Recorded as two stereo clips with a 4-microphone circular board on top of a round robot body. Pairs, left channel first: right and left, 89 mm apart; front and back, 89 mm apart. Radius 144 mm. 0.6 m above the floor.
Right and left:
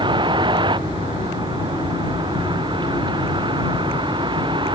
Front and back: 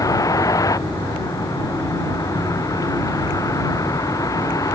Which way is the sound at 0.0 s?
55° left.